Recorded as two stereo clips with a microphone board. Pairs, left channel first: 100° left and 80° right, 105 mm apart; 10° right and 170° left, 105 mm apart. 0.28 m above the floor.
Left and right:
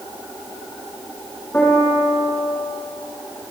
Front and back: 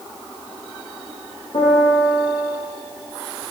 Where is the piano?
25° left, 6.5 m.